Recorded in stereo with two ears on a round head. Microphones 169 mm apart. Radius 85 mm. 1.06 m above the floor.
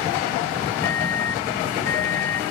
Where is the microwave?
15° left (ahead or behind).